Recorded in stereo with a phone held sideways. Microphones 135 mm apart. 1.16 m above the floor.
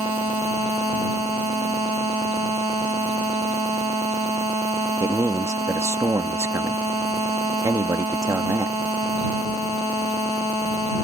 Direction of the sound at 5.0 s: 25° right (ahead or behind).